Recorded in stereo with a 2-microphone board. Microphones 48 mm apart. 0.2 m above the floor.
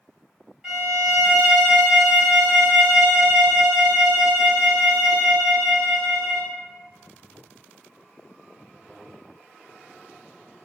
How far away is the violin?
About 1.7 m.